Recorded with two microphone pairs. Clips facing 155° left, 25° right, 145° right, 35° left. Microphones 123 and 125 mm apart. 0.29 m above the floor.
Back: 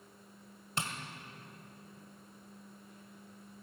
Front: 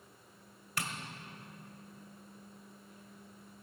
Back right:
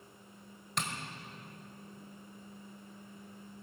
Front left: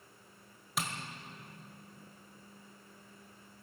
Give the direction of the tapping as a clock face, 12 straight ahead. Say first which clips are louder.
Back 1 dB, even; 8 o'clock.